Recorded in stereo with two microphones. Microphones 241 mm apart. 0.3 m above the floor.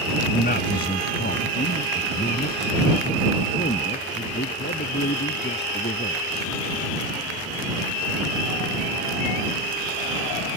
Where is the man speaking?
40° left (ahead or behind); by 6.5 s 45° left (ahead or behind).